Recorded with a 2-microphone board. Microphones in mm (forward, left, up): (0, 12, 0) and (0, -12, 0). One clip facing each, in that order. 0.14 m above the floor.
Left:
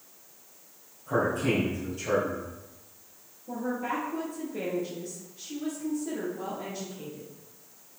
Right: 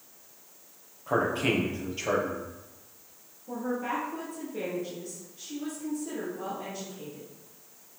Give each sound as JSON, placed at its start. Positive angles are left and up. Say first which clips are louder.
{"t": 1.1, "sound": "a man speaking", "louder": "even", "side_deg": -50, "distance_m": 3.5}
{"t": 3.5, "sound": "a woman speaking", "louder": "even", "side_deg": 0, "distance_m": 3.5}